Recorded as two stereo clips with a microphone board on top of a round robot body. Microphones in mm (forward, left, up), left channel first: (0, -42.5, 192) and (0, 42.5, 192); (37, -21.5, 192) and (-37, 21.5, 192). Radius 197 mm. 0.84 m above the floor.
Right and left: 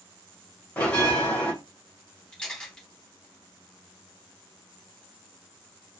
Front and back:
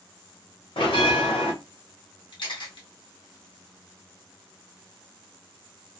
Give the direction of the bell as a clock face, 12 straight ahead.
1 o'clock.